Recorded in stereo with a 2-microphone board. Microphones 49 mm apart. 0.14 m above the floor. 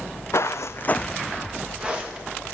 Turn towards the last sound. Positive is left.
turn(degrees=-25)  # may be behind; listen again after turning